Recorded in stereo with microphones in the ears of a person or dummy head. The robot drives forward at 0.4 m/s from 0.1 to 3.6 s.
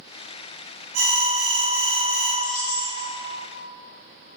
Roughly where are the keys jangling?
Left.